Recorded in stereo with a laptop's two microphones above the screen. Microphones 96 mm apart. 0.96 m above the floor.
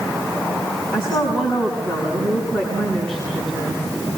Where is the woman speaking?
5° left (ahead or behind), 8.5 m.